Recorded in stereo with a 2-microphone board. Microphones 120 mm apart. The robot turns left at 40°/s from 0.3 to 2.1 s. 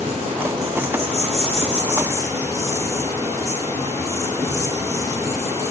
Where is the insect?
80° right, 5 m; by 5.7 s 155° right, 5 m.